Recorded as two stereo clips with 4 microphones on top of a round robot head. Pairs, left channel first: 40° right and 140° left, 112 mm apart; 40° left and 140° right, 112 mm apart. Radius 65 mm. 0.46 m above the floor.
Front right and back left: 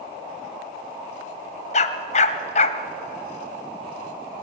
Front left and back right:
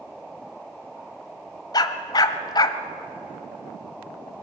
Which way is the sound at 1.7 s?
15° right.